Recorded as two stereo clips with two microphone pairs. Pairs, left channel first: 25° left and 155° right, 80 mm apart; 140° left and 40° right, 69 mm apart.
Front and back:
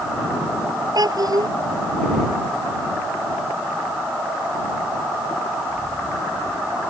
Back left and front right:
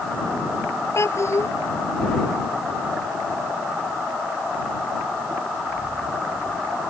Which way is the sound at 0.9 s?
Straight behind.